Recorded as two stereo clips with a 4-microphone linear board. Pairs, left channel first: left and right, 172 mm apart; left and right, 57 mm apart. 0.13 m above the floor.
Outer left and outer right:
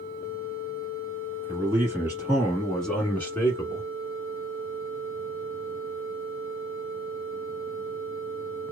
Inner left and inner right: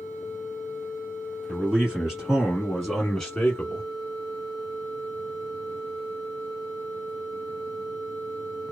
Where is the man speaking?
15° right (ahead or behind), 1.6 m; by 3.9 s 20° left (ahead or behind), 1.2 m.